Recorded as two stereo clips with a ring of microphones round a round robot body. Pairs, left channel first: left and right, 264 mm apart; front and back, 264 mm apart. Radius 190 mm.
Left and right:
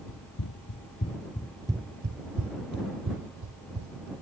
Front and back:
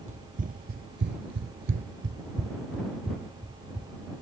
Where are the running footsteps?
115° left; by 4.1 s 95° right.